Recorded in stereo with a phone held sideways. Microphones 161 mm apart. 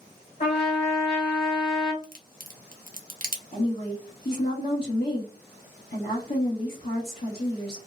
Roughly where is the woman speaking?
Left.